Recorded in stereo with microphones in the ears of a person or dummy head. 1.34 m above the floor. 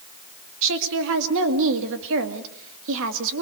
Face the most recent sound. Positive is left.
turn(degrees=-75)  # may be behind; listen again after turning